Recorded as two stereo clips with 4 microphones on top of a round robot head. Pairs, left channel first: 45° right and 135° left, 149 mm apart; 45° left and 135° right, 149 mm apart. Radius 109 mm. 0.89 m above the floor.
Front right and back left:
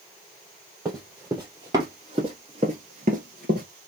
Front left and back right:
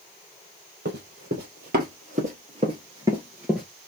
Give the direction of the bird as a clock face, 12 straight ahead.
No bird in this recording.